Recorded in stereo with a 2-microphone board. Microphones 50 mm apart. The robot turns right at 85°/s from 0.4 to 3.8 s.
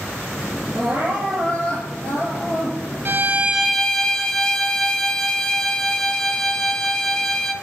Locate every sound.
0.7 s crying: 50° right, 3.5 m; by 3.0 s 135° left, 3.5 m
3.0 s a violin: 55° right, 0.8 m; by 7.5 s 10° left, 0.8 m